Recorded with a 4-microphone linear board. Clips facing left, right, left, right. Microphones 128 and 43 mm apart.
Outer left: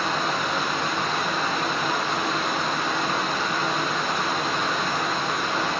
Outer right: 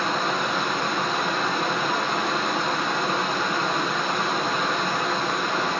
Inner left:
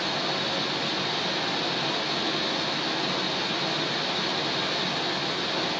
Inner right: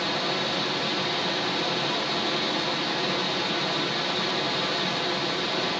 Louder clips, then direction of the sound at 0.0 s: Outer right 1 dB, inner right 1 dB; centre (ahead or behind).